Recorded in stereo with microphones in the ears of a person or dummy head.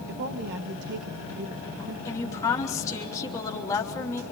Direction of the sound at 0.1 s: 55° right (ahead or behind).